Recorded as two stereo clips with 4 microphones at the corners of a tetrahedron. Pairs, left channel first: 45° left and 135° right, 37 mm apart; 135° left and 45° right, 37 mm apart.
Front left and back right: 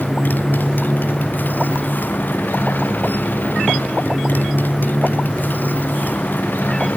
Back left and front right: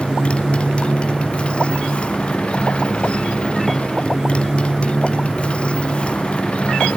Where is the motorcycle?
75° left.